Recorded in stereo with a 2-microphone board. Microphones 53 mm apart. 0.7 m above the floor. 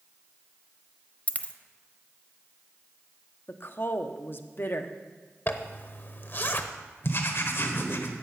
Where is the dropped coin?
30° left (ahead or behind), 0.7 m.